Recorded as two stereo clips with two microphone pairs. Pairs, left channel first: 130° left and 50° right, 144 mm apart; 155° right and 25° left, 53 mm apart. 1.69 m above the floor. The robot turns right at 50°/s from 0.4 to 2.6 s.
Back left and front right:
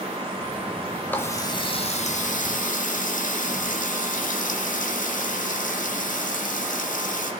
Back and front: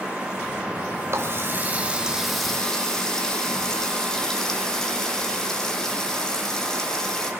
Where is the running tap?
50° left, 1.8 m; by 7.3 s 125° left, 1.8 m.